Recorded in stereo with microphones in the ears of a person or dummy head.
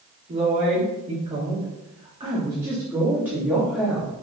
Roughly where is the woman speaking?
Right.